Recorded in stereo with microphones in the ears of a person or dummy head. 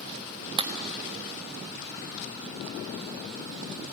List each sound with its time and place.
0.6 s a clap: 25° right (ahead or behind), 1.3 m